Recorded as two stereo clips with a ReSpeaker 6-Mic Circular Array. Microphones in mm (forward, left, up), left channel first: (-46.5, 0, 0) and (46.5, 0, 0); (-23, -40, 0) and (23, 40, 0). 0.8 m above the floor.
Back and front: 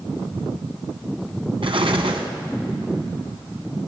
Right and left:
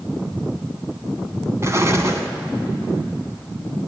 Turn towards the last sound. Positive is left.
turn(degrees=5)